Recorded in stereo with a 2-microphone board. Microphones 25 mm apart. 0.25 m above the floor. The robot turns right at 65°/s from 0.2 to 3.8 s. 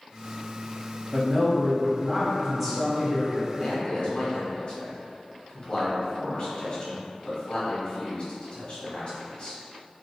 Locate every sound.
1.1 s a man speaking: 115° right, 1.0 m; by 3.5 s 40° left, 1.0 m
3.6 s a man speaking: 45° left (ahead or behind), 1.3 m